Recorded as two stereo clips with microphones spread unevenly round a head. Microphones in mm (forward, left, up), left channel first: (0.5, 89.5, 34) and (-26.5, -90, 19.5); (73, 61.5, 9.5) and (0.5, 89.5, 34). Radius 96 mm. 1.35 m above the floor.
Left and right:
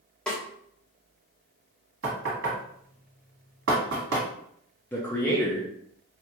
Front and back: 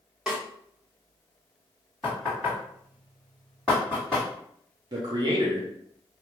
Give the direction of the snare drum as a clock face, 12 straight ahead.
7 o'clock.